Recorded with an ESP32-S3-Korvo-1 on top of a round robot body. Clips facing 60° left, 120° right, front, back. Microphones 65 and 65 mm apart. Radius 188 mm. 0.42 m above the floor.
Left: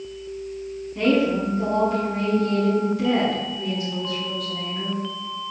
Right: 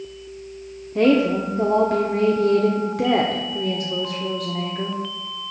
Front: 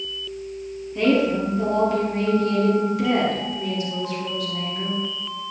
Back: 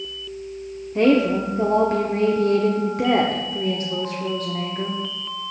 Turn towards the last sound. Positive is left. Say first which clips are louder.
# right 3 dB, back 2 dB
turn(degrees=-135)